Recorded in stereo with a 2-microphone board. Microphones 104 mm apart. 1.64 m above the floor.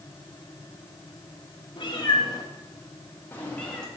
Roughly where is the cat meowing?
Left.